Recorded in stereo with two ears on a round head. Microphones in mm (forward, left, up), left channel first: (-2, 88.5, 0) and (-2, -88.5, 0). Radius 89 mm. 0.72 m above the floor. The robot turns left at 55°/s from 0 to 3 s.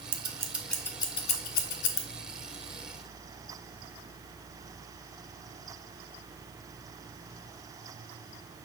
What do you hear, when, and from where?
0.1 s scissors: 30° right (ahead or behind), 0.5 m; by 2.0 s 70° left (ahead or behind), 0.5 m